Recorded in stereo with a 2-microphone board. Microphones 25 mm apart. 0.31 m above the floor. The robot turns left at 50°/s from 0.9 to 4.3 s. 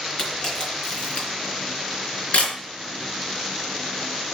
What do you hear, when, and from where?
0.2 s a camera shutter: 30° left (ahead or behind), 3.5 m; by 2.5 s 60° left (ahead or behind), 3.5 m